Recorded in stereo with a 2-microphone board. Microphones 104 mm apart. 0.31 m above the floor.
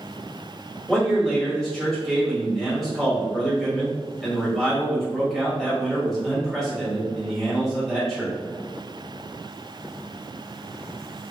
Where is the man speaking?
5° left (ahead or behind), 1.5 m.